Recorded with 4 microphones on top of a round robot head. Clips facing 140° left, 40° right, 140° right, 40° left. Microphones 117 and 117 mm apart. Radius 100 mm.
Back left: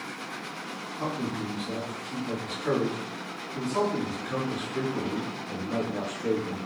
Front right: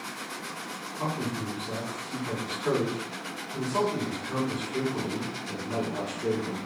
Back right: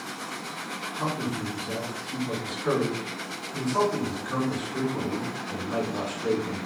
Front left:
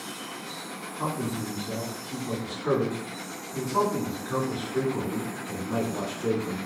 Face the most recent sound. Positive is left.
turn(degrees=-30)